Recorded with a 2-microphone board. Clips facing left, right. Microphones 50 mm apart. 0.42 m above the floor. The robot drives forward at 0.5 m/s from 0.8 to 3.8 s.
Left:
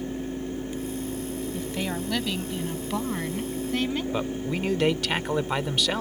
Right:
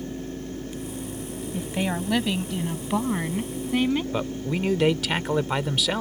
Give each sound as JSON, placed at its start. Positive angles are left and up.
{"t": 1.5, "sound": "a woman speaking", "side_deg": -15}
{"t": 4.1, "sound": "a man speaking", "side_deg": -5}